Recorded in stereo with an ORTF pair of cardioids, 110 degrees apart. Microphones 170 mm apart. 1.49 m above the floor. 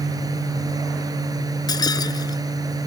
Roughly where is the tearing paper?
No tearing paper in this recording.